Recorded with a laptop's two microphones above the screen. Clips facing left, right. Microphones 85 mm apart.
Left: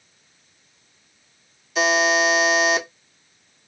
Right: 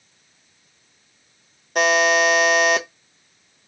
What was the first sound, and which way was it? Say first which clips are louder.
A buzzer: right 2 dB; 55° right (ahead or behind).